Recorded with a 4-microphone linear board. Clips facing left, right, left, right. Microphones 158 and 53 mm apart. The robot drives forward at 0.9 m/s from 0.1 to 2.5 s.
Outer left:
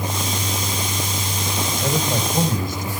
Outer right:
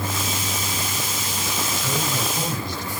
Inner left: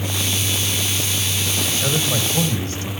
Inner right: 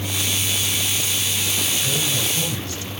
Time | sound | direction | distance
1.6 | a man speaking | 50° left (ahead or behind) | 6.5 m